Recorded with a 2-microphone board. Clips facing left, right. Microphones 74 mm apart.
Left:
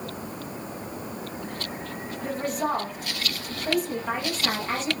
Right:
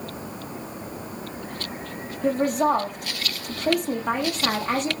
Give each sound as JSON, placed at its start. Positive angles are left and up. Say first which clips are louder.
{"t": 2.2, "sound": "a woman speaking", "louder": "right 7 dB", "side_deg": -65, "distance_m": 9.0}